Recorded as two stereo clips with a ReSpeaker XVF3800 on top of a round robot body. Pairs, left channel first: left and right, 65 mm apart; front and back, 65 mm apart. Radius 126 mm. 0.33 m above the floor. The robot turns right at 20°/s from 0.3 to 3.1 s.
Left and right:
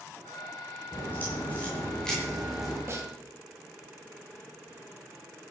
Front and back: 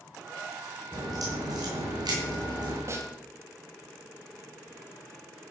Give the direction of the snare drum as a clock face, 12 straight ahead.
5 o'clock.